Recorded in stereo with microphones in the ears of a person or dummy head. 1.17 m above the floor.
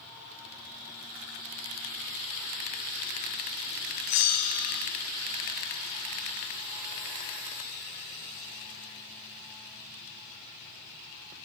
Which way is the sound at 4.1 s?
80° left.